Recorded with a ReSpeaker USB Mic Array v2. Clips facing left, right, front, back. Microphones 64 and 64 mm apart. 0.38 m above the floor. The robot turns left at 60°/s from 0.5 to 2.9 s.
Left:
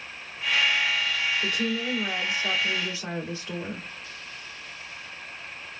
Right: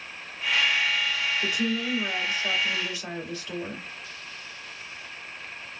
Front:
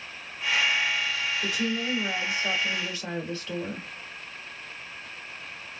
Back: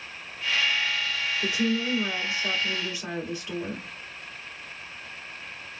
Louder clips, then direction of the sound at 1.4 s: Even, back 5 dB; 145° right.